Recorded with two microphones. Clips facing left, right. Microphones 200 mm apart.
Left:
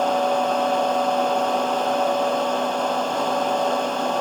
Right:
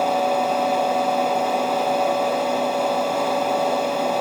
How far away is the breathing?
No breathing in this recording.